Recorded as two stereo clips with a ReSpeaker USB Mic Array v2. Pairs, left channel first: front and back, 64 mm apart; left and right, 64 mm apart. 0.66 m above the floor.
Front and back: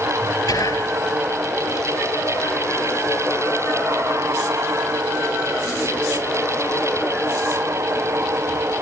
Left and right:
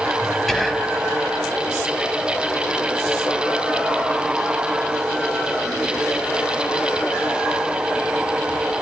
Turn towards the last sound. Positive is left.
turn(degrees=5)